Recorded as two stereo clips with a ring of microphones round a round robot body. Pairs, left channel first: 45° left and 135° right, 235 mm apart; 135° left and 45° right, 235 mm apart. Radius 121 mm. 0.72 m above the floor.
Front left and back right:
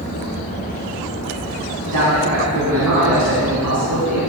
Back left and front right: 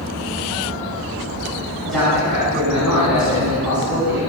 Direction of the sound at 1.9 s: 135° right.